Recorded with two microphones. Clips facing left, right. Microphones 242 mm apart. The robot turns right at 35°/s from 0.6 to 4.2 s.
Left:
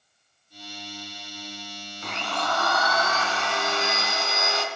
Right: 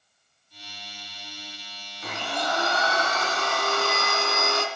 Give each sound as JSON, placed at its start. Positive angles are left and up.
{"t": 2.0, "sound": "a blender", "azimuth_deg": 180, "distance_m": 2.5}